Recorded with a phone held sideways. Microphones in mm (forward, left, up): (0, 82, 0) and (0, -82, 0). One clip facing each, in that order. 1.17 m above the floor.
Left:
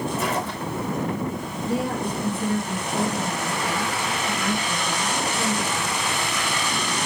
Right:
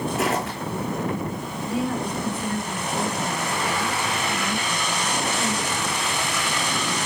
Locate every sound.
0.1 s footsteps: 70° right (ahead or behind), 3.5 m
1.6 s a woman speaking: 55° left (ahead or behind), 4.5 m